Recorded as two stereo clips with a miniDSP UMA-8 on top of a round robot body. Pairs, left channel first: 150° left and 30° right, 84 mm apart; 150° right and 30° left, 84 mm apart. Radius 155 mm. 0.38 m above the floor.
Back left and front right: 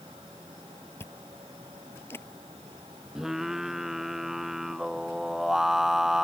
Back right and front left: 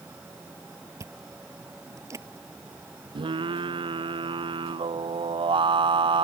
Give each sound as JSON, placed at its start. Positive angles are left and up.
{"t": 1.0, "sound": "chewing", "azimuth_deg": 85}
{"t": 3.1, "sound": "singing", "azimuth_deg": 55}